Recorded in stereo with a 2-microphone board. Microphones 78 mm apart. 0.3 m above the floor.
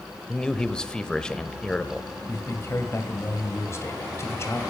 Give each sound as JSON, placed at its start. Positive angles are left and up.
{"t": 0.3, "sound": "a man speaking", "side_deg": 10, "distance_m": 0.9}
{"t": 2.3, "sound": "a man speaking", "side_deg": 35, "distance_m": 1.9}